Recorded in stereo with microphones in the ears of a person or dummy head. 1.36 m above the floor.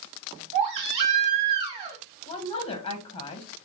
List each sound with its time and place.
0.5 s a baby crying: 30° right (ahead or behind), 1.8 m
2.3 s a woman speaking: 25° left (ahead or behind), 0.9 m